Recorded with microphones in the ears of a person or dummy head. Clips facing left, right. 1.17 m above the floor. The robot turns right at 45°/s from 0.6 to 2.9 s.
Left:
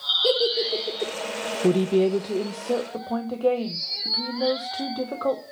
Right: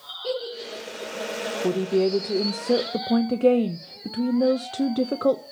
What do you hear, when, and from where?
0.2 s a giggle: 85° left, 4 m; by 1.1 s 65° left (ahead or behind), 4 m
1.6 s a woman speaking: 150° left, 0.7 m; by 5.4 s 150° right, 0.7 m